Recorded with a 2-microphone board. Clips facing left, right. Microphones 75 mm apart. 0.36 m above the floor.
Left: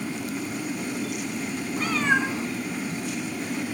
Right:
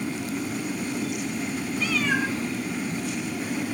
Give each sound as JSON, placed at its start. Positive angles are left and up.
{"t": 1.8, "sound": "a cat meowing", "side_deg": 45, "distance_m": 1.4}